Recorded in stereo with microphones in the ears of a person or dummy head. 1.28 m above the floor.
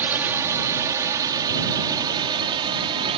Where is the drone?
10° right (ahead or behind); by 3.2 s 30° right (ahead or behind).